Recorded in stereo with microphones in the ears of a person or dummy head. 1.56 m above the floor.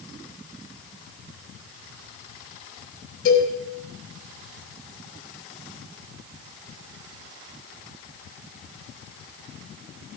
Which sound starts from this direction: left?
A cowbell, at 3.2 s.